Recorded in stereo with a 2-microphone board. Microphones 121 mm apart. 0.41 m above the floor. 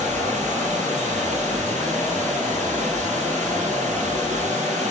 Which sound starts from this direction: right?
Running water, at 0.0 s.